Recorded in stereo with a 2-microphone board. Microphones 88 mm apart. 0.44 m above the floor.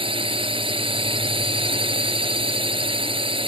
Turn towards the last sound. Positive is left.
turn(degrees=-80)